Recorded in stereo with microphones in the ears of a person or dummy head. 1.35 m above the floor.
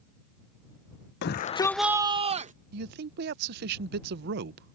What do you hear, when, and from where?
1.2 s a shout: 60° left (ahead or behind); by 2.5 s 35° right (ahead or behind)
2.7 s a man speaking: 60° right (ahead or behind)